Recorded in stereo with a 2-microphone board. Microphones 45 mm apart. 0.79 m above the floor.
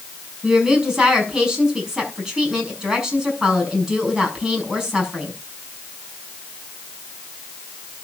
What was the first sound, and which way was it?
A woman speaking, 15° right (ahead or behind).